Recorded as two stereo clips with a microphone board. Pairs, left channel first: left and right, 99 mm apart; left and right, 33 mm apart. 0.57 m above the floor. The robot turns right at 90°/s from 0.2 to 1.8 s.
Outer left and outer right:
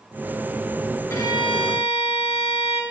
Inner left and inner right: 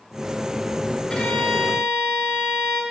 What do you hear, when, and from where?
1.1 s a violin: 25° left, 2.5 m; by 2.8 s 90° left, 2.5 m